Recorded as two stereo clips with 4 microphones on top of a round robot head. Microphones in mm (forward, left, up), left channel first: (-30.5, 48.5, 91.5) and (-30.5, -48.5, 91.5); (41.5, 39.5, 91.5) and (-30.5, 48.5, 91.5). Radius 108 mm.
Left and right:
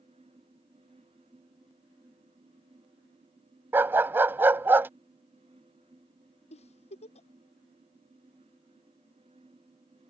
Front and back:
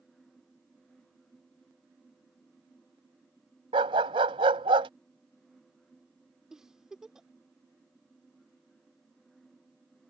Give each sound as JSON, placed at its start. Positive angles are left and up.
{"t": 3.7, "sound": "a dog barking", "azimuth_deg": -160}
{"t": 6.5, "sound": "a giggle", "azimuth_deg": 90}